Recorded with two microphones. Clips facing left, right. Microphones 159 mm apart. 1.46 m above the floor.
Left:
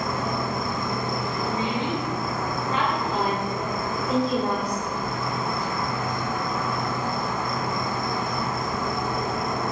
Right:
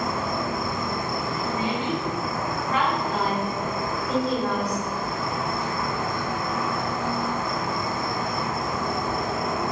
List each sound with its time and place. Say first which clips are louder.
0.0 s an insect: even; centre (ahead or behind), 1.7 m
1.4 s a woman speaking: even; 25° left (ahead or behind), 1.1 m
3.1 s a woman speaking: even; 5° left (ahead or behind), 1.8 m